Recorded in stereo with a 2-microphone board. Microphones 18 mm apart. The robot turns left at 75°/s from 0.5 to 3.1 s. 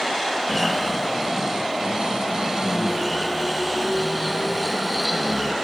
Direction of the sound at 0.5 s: 25° left.